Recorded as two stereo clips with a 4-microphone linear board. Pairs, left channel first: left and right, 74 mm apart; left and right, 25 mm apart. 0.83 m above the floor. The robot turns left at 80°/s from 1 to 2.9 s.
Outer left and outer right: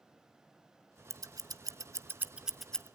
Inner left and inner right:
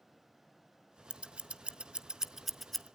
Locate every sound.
1.1 s scissors: 45° right (ahead or behind), 0.6 m; by 2.9 s 15° left (ahead or behind), 0.6 m